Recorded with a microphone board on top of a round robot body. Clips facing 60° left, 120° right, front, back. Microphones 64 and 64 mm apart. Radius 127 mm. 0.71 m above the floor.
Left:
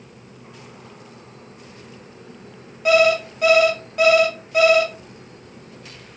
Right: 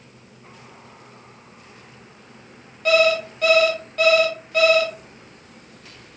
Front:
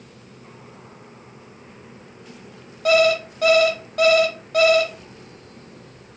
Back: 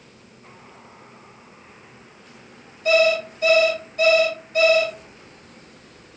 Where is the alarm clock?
20° right, 1.6 m.